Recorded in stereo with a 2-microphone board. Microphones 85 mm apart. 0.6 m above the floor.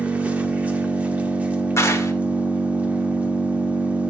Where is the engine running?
15° right (ahead or behind), 1.0 m.